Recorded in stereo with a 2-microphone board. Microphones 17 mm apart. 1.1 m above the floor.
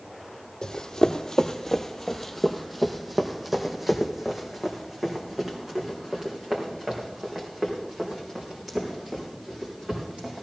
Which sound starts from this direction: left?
Running footsteps, at 0.6 s.